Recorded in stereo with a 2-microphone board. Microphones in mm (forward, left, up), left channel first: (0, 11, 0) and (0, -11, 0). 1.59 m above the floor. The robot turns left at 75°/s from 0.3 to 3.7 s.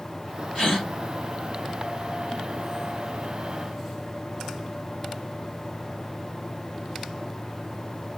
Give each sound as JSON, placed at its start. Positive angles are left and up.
{"t": 0.6, "sound": "a gasp", "side_deg": 40, "distance_m": 2.5}